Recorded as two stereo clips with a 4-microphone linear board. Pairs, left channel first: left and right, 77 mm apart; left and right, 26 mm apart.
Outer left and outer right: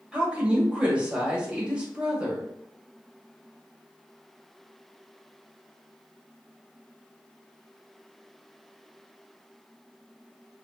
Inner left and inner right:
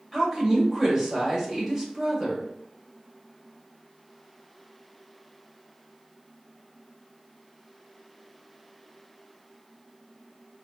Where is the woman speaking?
15° right (ahead or behind), 1.5 m.